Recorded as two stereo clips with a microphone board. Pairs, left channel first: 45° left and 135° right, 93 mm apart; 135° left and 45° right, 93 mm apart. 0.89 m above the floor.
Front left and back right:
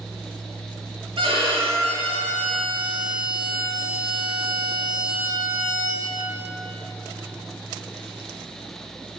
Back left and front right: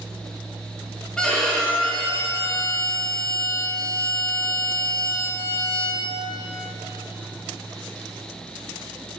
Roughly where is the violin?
Behind right.